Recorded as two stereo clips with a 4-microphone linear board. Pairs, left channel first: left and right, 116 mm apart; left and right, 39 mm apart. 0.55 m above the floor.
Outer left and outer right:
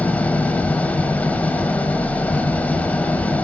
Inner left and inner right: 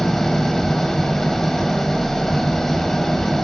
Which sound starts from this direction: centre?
An engine running, at 0.0 s.